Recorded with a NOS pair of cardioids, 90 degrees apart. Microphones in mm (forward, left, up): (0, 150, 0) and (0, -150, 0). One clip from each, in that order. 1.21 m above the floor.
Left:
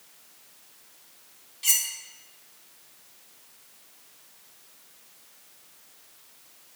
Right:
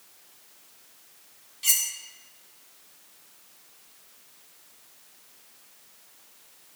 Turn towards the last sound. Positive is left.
turn(degrees=-5)